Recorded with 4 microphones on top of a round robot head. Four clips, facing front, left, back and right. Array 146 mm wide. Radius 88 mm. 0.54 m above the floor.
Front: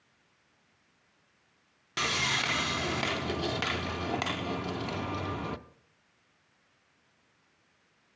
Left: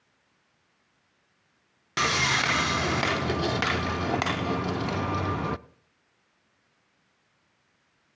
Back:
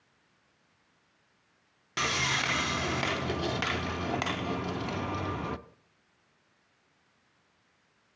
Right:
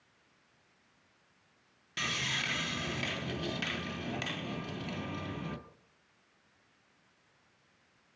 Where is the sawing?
85° left, 0.6 m.